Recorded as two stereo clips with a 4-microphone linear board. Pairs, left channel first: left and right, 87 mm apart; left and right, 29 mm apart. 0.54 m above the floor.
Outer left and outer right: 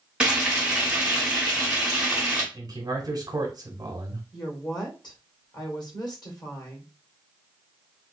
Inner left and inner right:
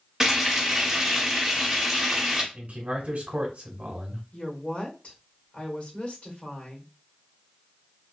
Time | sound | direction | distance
0.2 | frying | 10° right (ahead or behind) | 1.3 m
2.5 | a man speaking | 45° right (ahead or behind) | 1.2 m
4.3 | a woman speaking | 55° left (ahead or behind) | 1.5 m